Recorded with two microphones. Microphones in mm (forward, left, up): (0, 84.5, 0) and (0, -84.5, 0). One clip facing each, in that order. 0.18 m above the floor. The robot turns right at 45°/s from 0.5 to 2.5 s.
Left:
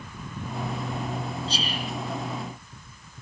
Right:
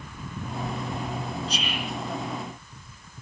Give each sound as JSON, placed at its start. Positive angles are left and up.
{"t": 1.5, "sound": "whispering", "side_deg": 30, "distance_m": 1.8}